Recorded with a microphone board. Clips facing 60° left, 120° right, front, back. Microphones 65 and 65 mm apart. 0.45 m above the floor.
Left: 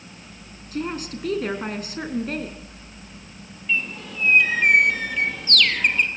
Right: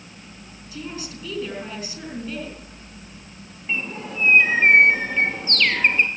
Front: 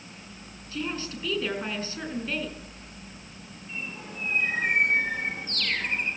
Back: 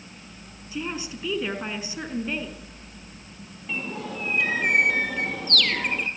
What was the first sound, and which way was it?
A woman speaking, 105° left.